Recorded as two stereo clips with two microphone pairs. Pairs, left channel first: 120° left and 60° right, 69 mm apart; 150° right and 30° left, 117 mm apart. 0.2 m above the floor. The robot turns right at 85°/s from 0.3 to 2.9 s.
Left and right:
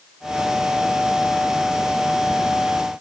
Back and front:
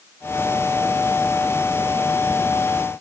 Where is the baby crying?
I don't hear a baby crying.